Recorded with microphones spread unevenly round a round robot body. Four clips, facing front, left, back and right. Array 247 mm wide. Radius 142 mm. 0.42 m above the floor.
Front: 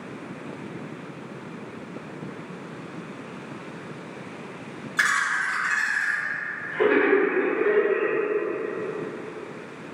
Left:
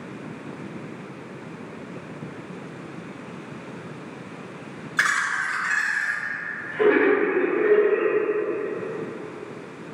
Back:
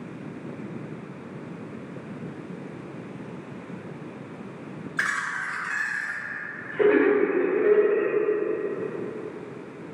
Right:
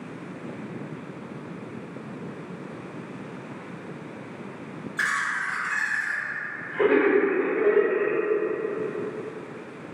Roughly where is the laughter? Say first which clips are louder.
Left 4 dB, front 5 dB; left.